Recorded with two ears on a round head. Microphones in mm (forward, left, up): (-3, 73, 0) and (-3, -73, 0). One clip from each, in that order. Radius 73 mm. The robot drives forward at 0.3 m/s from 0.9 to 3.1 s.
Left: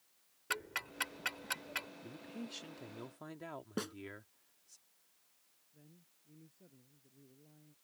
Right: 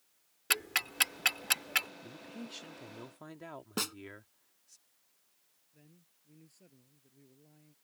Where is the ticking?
75° right (ahead or behind); by 1.9 s 60° right (ahead or behind).